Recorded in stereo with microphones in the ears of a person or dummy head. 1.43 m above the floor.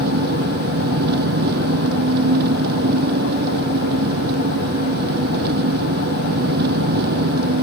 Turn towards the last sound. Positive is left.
turn(degrees=-55)  # may be behind; listen again after turning